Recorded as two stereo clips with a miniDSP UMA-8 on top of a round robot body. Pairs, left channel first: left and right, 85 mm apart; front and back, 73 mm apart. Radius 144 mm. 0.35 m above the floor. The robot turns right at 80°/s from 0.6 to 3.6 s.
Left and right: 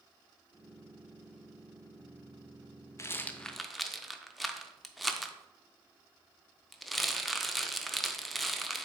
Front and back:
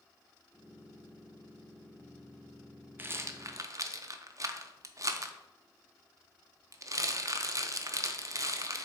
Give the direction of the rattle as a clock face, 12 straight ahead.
8 o'clock.